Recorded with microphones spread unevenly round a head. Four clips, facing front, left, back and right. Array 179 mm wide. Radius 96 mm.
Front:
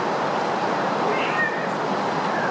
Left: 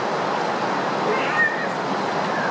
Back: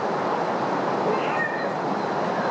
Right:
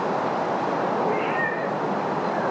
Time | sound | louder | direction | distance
1.1 | a cat meowing | left 2 dB, front 1 dB | 65° left | 1.8 m